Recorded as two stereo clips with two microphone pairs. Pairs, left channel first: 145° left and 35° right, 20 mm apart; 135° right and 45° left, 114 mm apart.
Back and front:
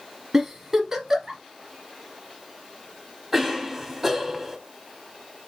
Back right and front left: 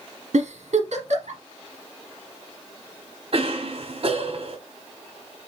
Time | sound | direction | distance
0.3 | a giggle | 30° left | 1.5 m
3.3 | a cough | 35° left | 1.5 m